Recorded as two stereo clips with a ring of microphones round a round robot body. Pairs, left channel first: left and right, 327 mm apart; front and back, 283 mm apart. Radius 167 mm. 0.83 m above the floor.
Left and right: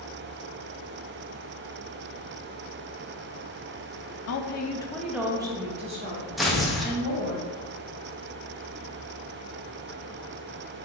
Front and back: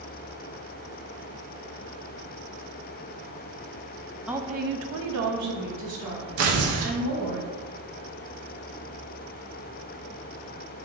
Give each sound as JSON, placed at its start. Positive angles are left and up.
{"t": 4.3, "sound": "a woman speaking", "azimuth_deg": 95, "distance_m": 0.5}
{"t": 6.4, "sound": "tearing paper", "azimuth_deg": 180, "distance_m": 0.7}